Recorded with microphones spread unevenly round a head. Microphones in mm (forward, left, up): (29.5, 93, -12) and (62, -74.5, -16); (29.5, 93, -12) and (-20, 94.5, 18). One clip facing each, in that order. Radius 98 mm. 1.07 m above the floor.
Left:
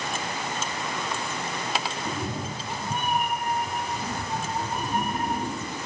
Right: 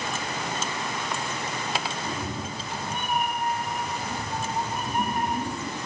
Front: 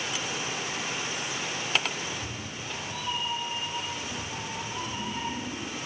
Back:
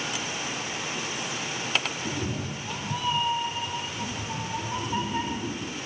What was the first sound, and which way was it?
A cat meowing, 170° left.